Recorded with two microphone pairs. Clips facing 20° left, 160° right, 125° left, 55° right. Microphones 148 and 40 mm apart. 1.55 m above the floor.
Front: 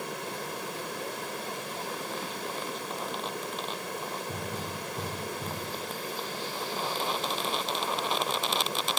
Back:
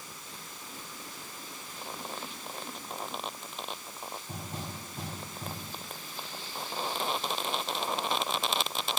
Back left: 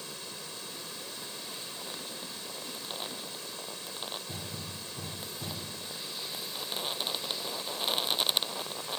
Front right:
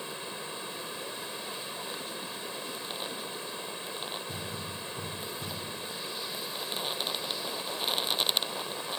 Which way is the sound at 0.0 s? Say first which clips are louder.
Front 13 dB, front right 5 dB; 10° left.